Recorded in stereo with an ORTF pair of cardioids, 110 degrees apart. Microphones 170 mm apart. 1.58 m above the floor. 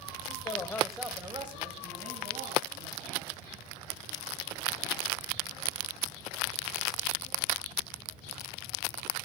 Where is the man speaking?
40° left, 1.2 m; by 3.3 s 60° right, 3.5 m.